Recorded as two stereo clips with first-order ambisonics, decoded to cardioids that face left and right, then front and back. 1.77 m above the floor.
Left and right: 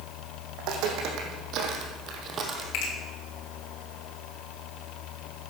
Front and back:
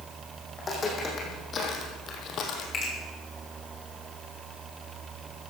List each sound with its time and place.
0.6 s footsteps: 70° right, 4 m; by 2.6 s 30° right, 2.5 m
2.7 s a finger snap: 65° left, 4.5 m